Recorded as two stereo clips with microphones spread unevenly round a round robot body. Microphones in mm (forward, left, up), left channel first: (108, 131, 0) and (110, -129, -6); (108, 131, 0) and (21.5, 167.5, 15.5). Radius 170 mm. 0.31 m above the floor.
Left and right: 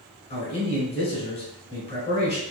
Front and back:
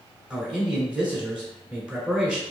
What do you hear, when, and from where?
0.3 s a man speaking: 70° left, 1.4 m